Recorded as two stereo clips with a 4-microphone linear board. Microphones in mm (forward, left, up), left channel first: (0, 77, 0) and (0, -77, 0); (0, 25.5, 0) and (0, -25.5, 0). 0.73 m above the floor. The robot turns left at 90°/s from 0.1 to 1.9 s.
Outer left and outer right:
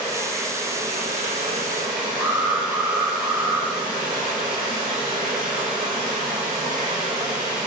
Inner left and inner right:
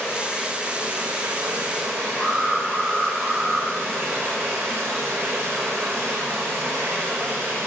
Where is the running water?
35° left, 7.5 m; by 7.7 s 130° right, 7.5 m.